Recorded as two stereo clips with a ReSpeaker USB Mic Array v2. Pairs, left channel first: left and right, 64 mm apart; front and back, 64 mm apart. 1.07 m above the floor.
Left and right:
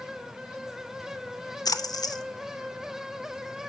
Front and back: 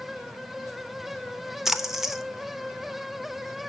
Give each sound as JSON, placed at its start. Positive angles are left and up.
{"t": 1.6, "sound": "a splash", "azimuth_deg": 95, "distance_m": 0.6}